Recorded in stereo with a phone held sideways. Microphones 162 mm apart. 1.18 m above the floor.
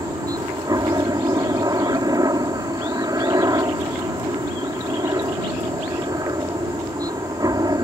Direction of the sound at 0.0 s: 20° right (ahead or behind).